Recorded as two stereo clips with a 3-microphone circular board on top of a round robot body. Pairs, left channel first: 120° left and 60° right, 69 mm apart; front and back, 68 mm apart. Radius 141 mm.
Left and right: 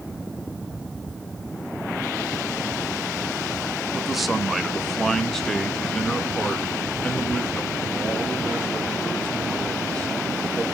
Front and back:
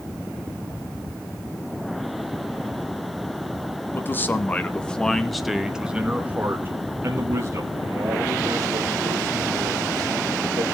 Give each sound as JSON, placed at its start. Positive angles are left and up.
{"t": 3.9, "sound": "a man speaking", "azimuth_deg": 25, "distance_m": 1.4}